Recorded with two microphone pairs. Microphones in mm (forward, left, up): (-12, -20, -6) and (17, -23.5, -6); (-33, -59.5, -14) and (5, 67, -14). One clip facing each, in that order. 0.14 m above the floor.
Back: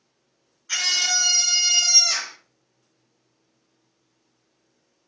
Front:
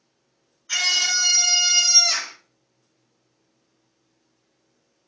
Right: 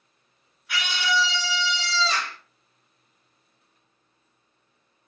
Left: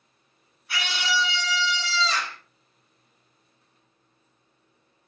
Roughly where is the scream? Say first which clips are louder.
Front 1 dB, right 2 dB; left.